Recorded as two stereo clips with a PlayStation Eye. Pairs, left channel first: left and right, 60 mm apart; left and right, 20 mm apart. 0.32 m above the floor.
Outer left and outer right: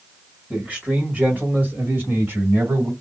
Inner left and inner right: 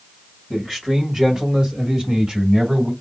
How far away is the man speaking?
About 1.7 m.